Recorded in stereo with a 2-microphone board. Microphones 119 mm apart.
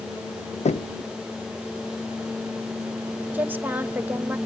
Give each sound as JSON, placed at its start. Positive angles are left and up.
{"t": 0.7, "sound": "knocking", "side_deg": 70, "distance_m": 0.7}
{"t": 3.3, "sound": "a woman speaking", "side_deg": -15, "distance_m": 1.2}